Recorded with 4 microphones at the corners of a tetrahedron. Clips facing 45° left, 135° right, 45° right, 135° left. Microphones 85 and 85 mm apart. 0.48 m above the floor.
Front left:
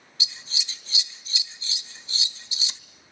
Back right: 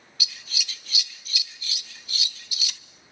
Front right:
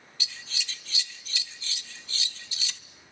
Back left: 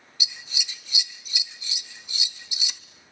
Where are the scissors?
75° left, 0.6 m.